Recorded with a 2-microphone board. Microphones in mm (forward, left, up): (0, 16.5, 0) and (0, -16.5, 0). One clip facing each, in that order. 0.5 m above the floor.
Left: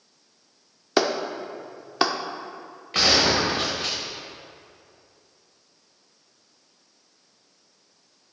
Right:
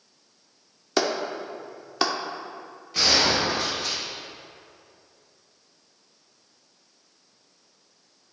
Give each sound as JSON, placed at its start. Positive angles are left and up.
{"t": 1.0, "sound": "a clap", "side_deg": 15, "distance_m": 0.6}
{"t": 2.9, "sound": "a gunshot", "side_deg": 65, "distance_m": 2.5}